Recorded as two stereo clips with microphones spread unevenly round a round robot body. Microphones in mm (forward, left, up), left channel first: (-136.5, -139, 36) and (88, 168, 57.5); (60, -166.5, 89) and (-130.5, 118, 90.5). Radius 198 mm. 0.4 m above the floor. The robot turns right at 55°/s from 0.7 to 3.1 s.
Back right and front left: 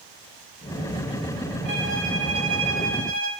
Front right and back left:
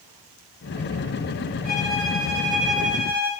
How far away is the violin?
About 4 m.